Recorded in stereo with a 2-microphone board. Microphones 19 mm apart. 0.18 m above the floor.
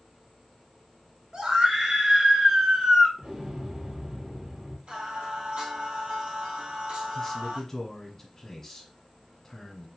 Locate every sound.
1.3 s a scream: 30° right (ahead or behind), 2 m
3.2 s an explosion: 45° right (ahead or behind), 3.5 m
4.9 s singing: 60° right (ahead or behind), 3 m
7.2 s a man speaking: 20° left (ahead or behind), 1.4 m